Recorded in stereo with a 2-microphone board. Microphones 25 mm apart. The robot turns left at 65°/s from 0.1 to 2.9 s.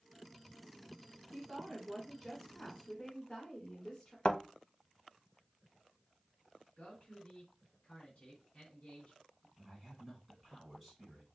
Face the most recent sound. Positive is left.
turn(degrees=0)  # may be behind; listen again after turning